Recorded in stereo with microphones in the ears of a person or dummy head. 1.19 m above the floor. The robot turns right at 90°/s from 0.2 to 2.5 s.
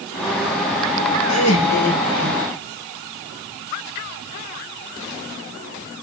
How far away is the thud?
No thud in this recording.